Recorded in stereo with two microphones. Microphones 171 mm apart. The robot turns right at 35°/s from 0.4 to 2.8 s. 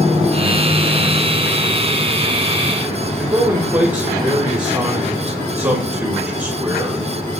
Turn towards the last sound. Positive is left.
turn(degrees=-15)  # may be behind; listen again after turning